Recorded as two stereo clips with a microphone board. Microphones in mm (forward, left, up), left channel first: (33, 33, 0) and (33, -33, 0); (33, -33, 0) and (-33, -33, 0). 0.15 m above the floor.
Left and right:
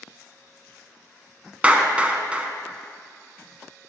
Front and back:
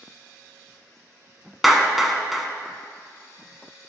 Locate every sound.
1.6 s a clap: 95° right, 0.8 m